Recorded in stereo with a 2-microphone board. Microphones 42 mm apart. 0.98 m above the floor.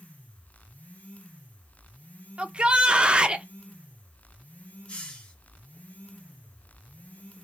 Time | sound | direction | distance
2.4 | a shout | 25° right (ahead or behind) | 0.6 m
4.9 | a hiss | 30° left (ahead or behind) | 1.5 m